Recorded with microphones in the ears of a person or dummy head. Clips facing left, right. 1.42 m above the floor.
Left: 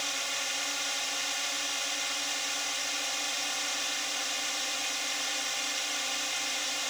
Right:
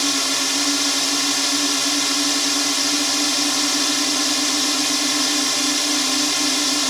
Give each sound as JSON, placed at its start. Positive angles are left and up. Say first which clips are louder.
{"t": 0.0, "sound": "a drone", "louder": "right 16 dB", "side_deg": -70}